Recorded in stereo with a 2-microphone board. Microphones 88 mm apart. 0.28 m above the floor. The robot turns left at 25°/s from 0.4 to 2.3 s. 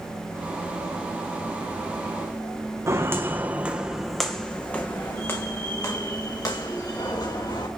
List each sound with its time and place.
2.9 s footsteps: 35° right (ahead or behind), 1.4 m; by 7.7 s 50° left (ahead or behind), 3 m